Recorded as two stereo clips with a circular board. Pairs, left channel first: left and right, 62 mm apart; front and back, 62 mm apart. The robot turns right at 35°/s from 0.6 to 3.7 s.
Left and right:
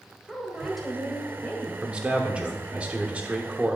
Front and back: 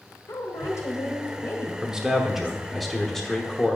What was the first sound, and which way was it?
A woman speaking, 5° right.